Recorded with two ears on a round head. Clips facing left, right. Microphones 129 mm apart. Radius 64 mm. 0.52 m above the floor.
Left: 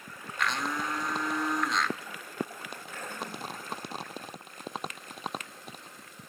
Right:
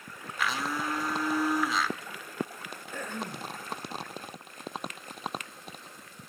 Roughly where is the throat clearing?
Right.